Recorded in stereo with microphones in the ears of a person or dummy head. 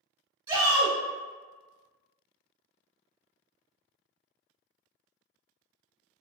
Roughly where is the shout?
Right.